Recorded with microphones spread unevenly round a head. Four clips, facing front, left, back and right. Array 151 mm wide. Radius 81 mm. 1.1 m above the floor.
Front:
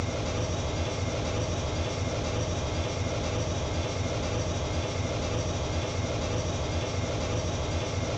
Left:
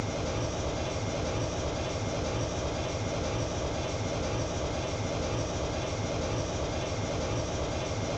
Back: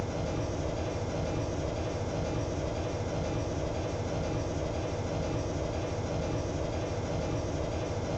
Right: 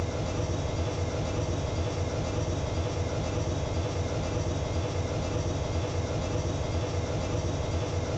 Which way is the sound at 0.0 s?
15° left.